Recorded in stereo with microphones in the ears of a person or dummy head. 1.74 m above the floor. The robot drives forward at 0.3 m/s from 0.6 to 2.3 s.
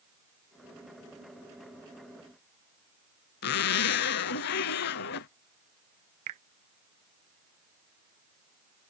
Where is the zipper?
65° left (ahead or behind).